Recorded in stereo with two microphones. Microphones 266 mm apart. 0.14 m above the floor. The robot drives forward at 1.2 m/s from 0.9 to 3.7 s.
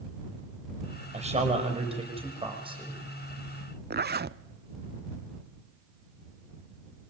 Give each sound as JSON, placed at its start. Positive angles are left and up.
{"t": 1.1, "sound": "a man speaking", "side_deg": -25, "distance_m": 5.5}
{"t": 3.9, "sound": "a zipper", "side_deg": -40, "distance_m": 0.6}